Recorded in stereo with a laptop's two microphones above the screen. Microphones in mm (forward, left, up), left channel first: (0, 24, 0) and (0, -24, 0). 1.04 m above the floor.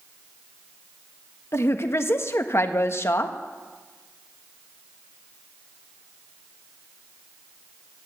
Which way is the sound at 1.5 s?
55° left (ahead or behind).